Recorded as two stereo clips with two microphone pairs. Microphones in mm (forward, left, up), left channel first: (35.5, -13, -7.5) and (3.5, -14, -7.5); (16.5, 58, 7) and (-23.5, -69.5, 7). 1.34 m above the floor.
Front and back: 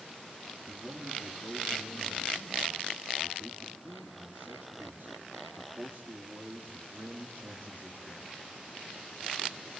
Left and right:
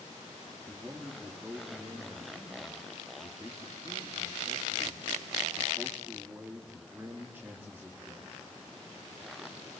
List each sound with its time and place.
0.7 s a man speaking: straight behind, 3.5 m